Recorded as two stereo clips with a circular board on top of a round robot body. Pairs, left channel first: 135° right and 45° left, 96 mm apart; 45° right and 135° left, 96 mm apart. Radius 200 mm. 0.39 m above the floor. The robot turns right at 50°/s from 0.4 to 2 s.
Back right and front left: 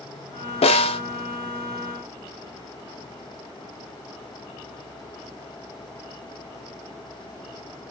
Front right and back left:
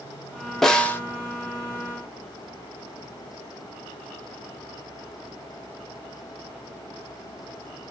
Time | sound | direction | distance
0.6 | a snare drum | 135° right | 0.6 m